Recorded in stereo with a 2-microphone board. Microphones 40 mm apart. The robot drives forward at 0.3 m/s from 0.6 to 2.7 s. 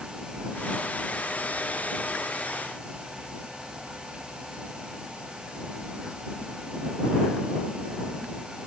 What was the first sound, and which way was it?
Only background noise.